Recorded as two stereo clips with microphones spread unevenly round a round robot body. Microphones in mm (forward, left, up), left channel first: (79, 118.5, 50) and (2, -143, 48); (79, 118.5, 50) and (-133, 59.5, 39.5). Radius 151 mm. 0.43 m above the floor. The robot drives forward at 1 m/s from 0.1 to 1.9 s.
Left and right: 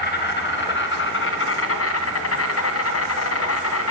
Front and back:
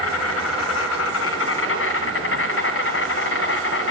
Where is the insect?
20° left, 3.5 m; by 3.9 s 40° left, 2 m.